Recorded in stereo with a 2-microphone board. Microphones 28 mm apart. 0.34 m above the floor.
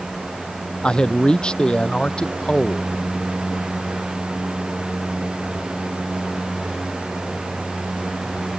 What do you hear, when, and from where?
0.8 s a man speaking: 35° left (ahead or behind)